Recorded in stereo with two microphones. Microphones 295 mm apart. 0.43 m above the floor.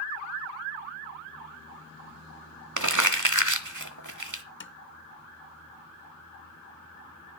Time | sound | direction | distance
2.8 | crumpling | 70° right (ahead or behind) | 1.0 m
4.6 | tapping | 40° left (ahead or behind) | 0.6 m